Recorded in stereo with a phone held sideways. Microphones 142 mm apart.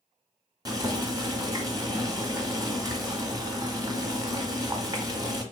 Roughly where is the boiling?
Right.